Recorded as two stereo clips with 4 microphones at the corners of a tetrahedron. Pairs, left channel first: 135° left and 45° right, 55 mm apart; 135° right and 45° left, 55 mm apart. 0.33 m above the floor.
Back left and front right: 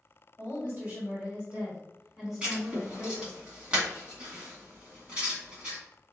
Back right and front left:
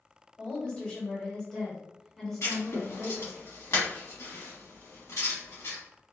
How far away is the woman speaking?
About 1.8 m.